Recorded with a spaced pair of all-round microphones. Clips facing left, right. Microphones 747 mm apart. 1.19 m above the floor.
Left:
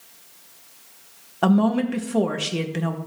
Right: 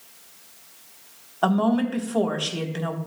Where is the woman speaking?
55° left (ahead or behind), 1.1 m.